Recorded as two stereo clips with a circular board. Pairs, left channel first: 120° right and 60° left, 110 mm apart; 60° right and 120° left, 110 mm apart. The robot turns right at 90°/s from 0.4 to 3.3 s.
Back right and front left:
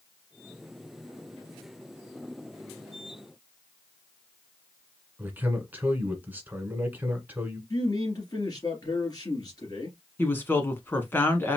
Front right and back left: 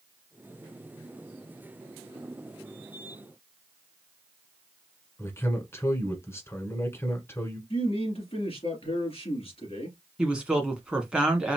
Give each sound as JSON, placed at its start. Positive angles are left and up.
{"t": 5.2, "sound": "a man speaking", "azimuth_deg": -5, "distance_m": 1.4}
{"t": 7.7, "sound": "a man speaking", "azimuth_deg": -70, "distance_m": 2.5}
{"t": 10.2, "sound": "a woman speaking", "azimuth_deg": -170, "distance_m": 1.4}